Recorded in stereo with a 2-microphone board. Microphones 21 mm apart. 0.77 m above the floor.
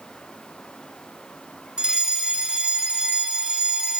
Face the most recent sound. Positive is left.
turn(degrees=-40)  # may be behind; listen again after turning